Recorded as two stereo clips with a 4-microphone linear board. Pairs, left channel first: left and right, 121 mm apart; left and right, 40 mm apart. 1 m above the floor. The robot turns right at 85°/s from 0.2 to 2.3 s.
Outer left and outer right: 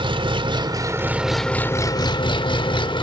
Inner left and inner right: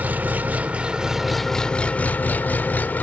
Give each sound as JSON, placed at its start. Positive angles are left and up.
{"t": 0.0, "sound": "an engine running", "azimuth_deg": -100, "distance_m": 0.8}